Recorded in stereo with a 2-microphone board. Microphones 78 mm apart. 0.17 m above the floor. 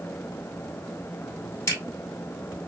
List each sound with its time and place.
1.7 s a camera shutter: 35° left (ahead or behind), 1.4 m